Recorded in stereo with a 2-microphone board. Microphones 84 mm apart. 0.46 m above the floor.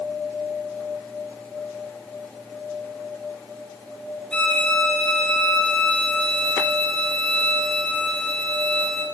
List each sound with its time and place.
4.3 s a violin: 15° left (ahead or behind), 1.7 m